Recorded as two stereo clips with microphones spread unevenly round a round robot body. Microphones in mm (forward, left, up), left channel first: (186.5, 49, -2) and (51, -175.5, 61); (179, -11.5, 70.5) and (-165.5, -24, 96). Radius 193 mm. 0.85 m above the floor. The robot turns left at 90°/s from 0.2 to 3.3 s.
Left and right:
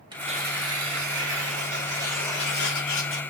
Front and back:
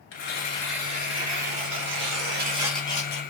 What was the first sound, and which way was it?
Tearing paper, 40° right.